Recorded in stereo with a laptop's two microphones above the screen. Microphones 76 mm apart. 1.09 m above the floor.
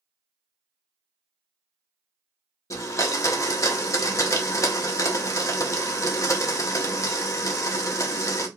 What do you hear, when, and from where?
2.7 s a blender: 45° left (ahead or behind), 0.6 m